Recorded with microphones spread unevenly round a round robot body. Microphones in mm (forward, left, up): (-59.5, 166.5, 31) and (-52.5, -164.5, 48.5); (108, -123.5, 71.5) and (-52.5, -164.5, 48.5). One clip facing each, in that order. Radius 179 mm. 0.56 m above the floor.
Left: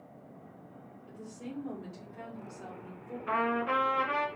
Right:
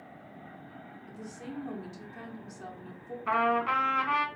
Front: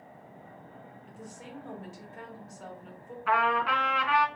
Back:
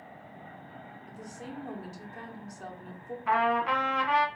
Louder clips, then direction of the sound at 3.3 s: Right 1 dB, back 1 dB; 110° right.